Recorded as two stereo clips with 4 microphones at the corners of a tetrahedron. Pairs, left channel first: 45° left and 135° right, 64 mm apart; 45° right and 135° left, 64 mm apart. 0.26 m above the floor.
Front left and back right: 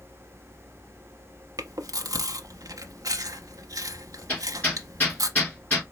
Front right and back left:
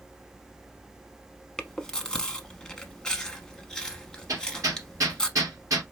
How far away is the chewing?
About 0.6 m.